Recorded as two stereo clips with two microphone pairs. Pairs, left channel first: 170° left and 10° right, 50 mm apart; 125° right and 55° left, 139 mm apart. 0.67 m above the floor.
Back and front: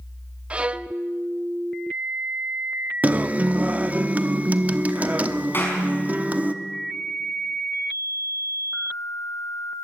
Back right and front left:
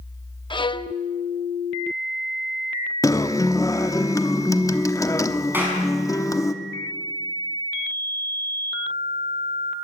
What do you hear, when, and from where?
0.5 s a violin: 75° right, 0.6 m
3.0 s a guitar: 65° right, 0.9 m
5.5 s a clap: 130° left, 5.5 m